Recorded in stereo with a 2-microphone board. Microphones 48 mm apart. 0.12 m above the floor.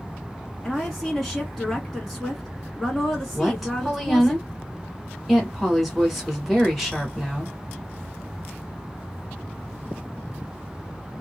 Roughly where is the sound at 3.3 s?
Centre.